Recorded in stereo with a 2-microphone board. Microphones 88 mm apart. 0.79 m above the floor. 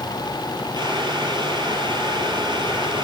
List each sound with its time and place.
0.8 s boiling: 55° right (ahead or behind), 6 m